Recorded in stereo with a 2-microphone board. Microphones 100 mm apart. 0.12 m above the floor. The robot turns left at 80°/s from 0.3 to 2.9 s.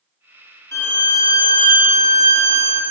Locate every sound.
0.7 s a violin: 45° left, 0.6 m; by 2.8 s 120° right, 0.6 m